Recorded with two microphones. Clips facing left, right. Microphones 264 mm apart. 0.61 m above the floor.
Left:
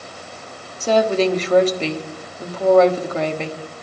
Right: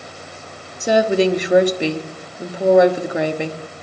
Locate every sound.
0.8 s a woman speaking: 15° right (ahead or behind), 1.1 m